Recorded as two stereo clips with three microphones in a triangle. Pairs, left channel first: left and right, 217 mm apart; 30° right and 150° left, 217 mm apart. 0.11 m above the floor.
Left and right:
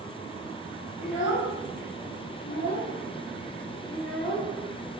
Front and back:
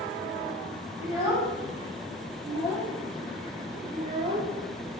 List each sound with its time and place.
1.0 s a child speaking: 70° left, 1.5 m; by 4.5 s 175° right, 1.1 m